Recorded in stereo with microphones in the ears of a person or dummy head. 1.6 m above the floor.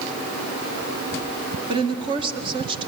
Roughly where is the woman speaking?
Right.